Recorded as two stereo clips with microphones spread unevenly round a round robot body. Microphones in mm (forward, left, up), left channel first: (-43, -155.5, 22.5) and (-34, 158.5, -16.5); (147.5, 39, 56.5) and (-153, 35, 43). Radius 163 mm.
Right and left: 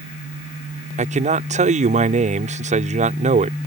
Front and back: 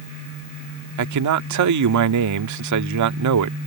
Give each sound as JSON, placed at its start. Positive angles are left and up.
{"t": 1.0, "sound": "a man speaking", "azimuth_deg": 155}